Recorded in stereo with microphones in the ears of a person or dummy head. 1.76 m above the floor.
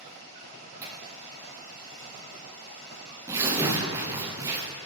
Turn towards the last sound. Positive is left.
turn(degrees=-15)  # may be behind; listen again after turning